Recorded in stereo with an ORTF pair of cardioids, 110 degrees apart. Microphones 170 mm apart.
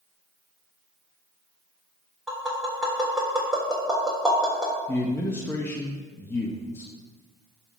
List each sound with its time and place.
2.3 s tapping: straight ahead, 3.5 m
4.9 s a man speaking: 15° left, 1.1 m